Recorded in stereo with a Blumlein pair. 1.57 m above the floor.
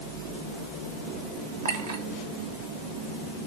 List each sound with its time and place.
1.6 s a clink: 60° right, 2 m